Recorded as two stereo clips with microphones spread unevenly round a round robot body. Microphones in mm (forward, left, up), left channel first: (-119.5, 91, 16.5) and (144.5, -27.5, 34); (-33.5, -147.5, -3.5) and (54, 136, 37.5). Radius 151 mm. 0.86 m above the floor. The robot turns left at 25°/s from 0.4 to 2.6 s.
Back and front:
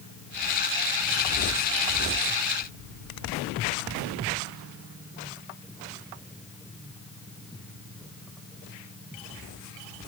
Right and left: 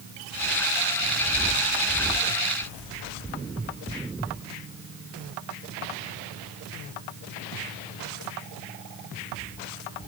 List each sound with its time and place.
Only background noise.